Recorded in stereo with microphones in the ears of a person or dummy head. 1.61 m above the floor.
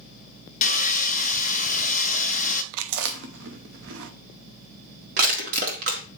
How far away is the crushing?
About 1.6 m.